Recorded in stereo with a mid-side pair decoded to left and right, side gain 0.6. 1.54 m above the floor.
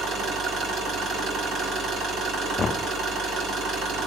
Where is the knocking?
30° left, 0.6 m.